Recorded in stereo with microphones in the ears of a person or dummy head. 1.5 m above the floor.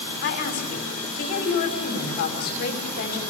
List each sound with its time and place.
0.2 s a woman speaking: 55° left (ahead or behind), 5 m